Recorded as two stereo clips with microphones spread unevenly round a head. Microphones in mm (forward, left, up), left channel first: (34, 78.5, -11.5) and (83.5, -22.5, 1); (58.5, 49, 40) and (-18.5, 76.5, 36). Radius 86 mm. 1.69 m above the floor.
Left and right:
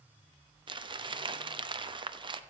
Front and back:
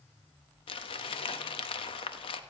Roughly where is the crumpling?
Ahead.